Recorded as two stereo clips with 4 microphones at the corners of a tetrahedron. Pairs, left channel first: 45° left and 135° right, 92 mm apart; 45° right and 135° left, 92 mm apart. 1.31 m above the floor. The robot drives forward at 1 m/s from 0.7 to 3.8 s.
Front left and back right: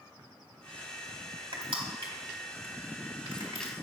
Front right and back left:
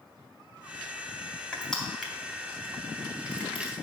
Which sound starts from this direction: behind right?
Crushing, at 1.5 s.